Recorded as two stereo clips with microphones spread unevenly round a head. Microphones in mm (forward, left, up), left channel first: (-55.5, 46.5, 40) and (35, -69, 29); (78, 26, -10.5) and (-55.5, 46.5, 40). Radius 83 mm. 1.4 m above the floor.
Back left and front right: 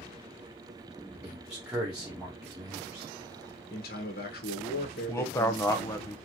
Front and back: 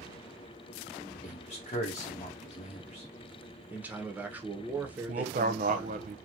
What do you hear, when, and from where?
1.1 s a man speaking: 30° left, 1.0 m
3.7 s a man speaking: 100° left, 0.9 m
5.1 s a man speaking: 160° right, 0.6 m